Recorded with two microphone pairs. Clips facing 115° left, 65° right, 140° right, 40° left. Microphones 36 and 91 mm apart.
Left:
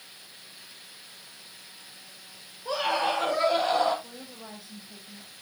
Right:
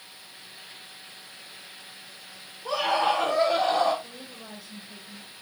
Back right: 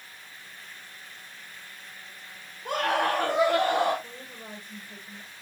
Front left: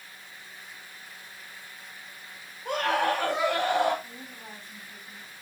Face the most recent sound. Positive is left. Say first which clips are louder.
# right 1 dB, back right 1 dB
turn(degrees=-145)